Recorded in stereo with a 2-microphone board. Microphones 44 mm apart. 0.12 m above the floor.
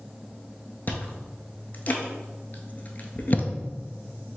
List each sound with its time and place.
0.9 s chewing: 40° left (ahead or behind), 0.6 m